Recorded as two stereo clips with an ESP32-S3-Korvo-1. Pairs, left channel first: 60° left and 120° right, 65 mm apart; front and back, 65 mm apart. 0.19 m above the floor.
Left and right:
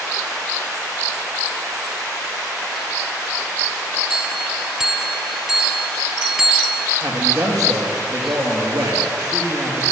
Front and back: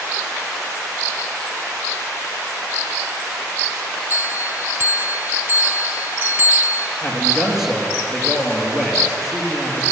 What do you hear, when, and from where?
4.1 s a bell: 165° left, 0.6 m
7.0 s a man speaking: 95° right, 3 m